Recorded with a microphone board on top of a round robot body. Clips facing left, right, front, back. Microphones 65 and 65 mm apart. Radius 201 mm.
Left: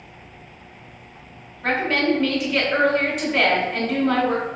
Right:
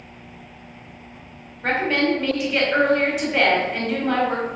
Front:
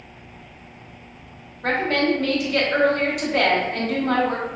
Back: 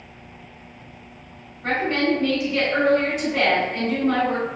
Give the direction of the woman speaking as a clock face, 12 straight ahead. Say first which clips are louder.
Even, front 1 dB; 12 o'clock.